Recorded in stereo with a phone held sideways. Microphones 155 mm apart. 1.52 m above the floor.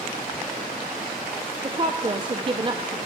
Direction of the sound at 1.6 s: 30° right (ahead or behind).